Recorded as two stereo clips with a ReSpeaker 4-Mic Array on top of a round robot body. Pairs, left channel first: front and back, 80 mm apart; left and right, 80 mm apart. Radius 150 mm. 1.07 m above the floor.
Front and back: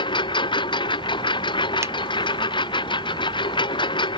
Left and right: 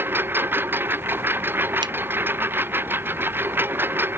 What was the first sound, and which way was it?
A lawn mower, 25° right.